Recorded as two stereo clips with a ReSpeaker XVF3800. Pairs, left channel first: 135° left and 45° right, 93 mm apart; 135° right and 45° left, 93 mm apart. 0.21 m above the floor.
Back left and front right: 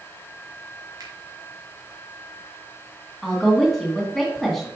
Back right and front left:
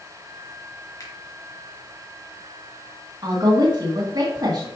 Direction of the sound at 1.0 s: 90° right.